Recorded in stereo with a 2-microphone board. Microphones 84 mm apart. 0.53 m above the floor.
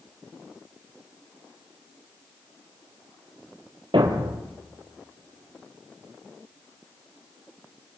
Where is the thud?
85° right, 3 m.